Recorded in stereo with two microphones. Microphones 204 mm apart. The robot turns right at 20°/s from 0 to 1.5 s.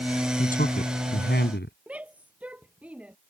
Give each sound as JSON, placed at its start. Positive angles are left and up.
{"t": 0.4, "sound": "a man speaking", "side_deg": 40}
{"t": 1.9, "sound": "a shout", "side_deg": -5}